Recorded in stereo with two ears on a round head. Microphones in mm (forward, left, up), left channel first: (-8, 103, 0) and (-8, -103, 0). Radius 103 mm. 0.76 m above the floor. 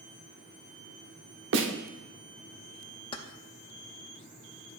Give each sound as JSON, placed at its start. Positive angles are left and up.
{"t": 1.5, "sound": "a snare drum", "side_deg": -60, "distance_m": 1.0}
{"t": 3.1, "sound": "keys jangling", "side_deg": 20, "distance_m": 0.5}